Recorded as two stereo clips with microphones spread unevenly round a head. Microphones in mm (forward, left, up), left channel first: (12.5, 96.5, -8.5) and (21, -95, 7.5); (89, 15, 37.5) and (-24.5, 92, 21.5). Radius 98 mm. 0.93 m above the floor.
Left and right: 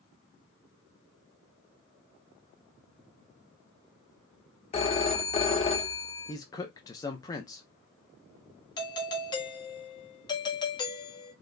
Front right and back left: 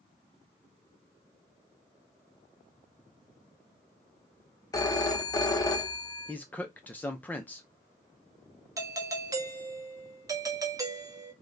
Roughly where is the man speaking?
Ahead left.